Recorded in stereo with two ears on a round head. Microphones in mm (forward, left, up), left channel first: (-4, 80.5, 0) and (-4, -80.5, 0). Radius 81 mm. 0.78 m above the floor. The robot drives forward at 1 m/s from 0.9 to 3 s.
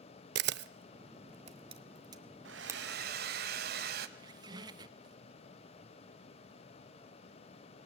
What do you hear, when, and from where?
0.3 s a camera shutter: 65° right (ahead or behind), 0.6 m; by 2.8 s 15° right (ahead or behind), 2 m
2.5 s a hair dryer: 75° right (ahead or behind), 1.3 m; by 4.1 s 60° right (ahead or behind), 1.4 m
4.2 s a squeak: 25° right (ahead or behind), 0.9 m